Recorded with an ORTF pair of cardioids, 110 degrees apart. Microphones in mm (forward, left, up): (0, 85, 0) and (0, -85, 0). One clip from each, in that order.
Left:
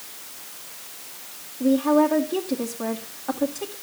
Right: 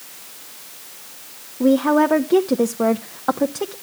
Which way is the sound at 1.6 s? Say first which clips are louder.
Right 3 dB; 65° right.